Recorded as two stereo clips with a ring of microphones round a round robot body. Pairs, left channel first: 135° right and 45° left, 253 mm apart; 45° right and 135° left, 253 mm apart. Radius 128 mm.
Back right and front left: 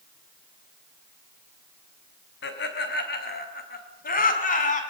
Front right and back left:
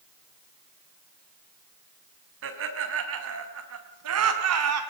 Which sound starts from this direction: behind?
Laughter, at 2.4 s.